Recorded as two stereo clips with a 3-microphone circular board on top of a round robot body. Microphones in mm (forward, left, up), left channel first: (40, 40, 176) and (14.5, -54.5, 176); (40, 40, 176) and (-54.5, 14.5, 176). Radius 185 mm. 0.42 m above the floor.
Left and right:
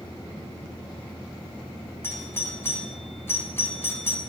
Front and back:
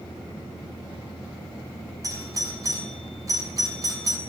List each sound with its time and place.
2.0 s a doorbell: 140° left, 6 m